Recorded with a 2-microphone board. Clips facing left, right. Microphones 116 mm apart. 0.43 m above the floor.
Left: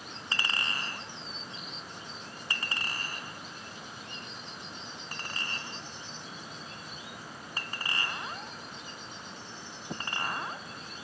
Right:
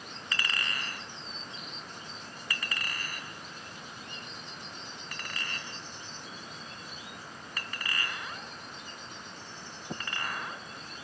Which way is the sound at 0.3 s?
30° left (ahead or behind).